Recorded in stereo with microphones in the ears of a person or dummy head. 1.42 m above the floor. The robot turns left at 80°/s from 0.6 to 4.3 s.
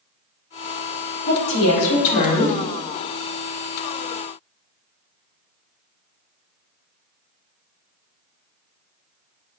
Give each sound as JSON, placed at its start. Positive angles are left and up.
{"t": 1.3, "sound": "a woman speaking", "azimuth_deg": 135, "distance_m": 0.8}